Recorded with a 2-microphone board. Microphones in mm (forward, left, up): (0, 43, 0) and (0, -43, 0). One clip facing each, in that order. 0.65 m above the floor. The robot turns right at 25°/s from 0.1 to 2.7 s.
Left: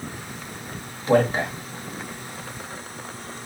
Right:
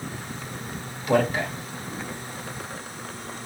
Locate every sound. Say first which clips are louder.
1.1 s a man speaking: left 3 dB; 30° left (ahead or behind), 0.9 m